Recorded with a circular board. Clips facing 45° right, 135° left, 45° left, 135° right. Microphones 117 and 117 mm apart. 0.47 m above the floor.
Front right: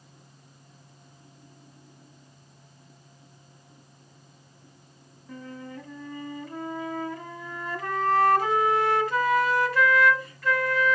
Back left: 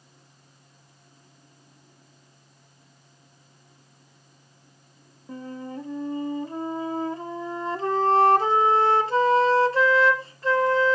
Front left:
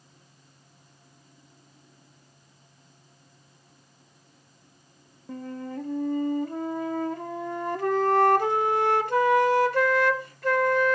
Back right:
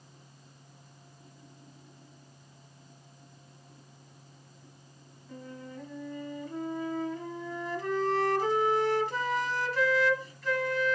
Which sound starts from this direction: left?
A flute, at 5.3 s.